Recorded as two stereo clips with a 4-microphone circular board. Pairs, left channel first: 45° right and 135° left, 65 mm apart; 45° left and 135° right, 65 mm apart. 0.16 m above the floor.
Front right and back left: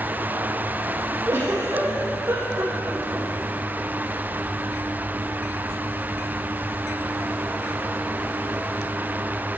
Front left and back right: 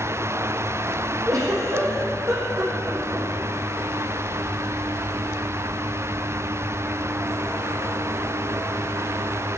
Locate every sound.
1.3 s a giggle: 170° right, 3.5 m